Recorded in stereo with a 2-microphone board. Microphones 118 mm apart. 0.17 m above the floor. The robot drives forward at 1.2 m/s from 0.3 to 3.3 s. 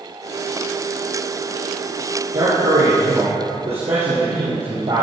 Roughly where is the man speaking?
Right.